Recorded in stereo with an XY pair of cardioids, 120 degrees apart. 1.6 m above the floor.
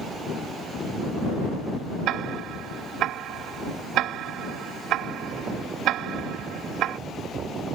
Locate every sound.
2.1 s ticking: 70° right